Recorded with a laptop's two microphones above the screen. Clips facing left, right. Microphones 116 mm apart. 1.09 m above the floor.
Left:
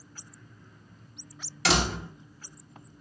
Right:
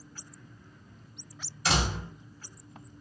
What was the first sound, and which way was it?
A door slam, 80° left.